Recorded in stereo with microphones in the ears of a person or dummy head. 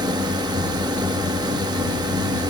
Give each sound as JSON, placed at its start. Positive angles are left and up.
{"t": 0.0, "sound": "a drone", "side_deg": -25}